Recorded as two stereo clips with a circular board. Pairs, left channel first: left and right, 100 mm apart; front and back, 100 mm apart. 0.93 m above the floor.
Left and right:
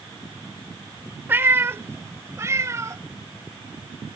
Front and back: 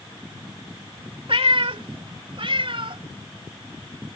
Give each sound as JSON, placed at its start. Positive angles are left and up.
{"t": 1.3, "sound": "a cat meowing", "azimuth_deg": -160}